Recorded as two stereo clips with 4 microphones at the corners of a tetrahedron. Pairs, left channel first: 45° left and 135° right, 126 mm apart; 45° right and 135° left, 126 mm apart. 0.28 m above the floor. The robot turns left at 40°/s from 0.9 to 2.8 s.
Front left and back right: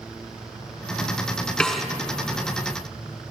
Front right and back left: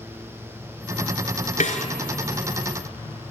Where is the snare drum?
40° right, 2 m; by 1.9 s 50° right, 2 m.